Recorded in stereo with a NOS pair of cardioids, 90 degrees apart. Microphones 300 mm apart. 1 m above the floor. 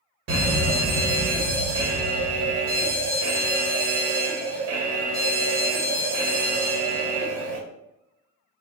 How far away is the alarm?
About 1.1 m.